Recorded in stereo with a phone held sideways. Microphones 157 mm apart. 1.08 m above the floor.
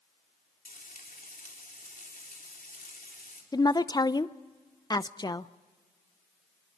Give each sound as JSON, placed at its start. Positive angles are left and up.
{"t": 0.7, "sound": "frying", "side_deg": 75, "distance_m": 3.5}
{"t": 3.5, "sound": "a woman speaking", "side_deg": 25, "distance_m": 0.6}